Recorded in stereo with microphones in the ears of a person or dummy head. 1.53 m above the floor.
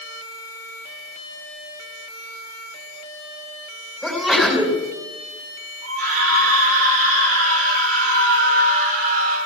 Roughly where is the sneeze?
Centre.